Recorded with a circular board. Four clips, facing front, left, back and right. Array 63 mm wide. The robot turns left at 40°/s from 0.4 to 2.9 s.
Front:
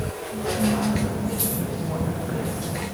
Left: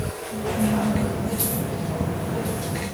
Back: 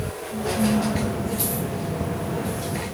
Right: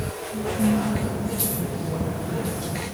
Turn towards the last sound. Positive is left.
turn(degrees=5)